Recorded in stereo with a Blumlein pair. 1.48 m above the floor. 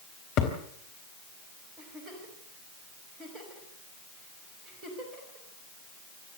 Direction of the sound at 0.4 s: 40° left.